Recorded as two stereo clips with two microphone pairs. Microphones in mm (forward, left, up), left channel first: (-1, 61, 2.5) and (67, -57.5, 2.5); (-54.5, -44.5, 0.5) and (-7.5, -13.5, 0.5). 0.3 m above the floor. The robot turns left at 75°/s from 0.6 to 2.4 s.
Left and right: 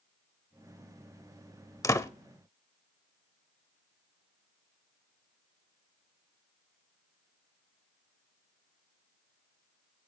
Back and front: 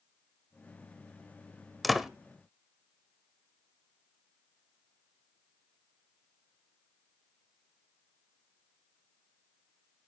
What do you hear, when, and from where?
1.8 s a door slam: 130° left, 0.7 m; by 2.1 s 115° left, 0.7 m